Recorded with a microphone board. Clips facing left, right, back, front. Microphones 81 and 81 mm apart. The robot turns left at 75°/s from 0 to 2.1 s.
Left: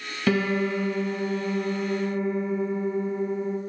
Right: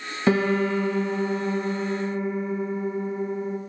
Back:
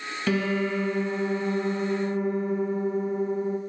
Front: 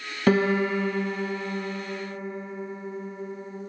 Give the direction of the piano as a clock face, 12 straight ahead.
1 o'clock.